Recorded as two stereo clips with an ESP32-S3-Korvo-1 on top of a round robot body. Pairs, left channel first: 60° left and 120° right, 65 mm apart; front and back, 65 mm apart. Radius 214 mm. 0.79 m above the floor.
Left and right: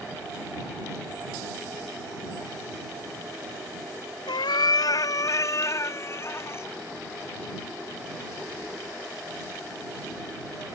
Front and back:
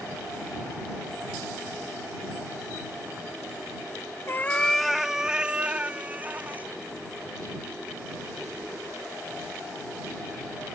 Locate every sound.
4.3 s a cat meowing: 55° left; by 6.7 s 115° left